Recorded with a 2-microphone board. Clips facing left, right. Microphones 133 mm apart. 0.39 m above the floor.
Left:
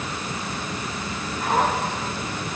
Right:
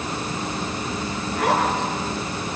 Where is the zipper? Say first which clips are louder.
Right 1 dB; 80° right, 8 m.